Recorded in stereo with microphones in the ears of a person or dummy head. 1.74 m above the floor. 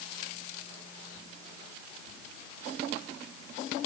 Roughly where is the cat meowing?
No cat meowing in this recording.